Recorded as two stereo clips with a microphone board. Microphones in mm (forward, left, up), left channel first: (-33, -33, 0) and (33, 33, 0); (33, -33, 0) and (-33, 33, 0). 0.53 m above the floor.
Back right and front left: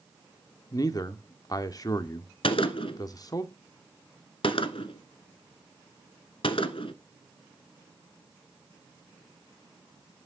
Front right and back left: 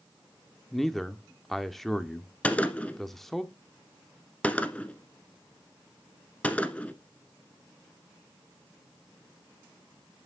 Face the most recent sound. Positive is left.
turn(degrees=-120)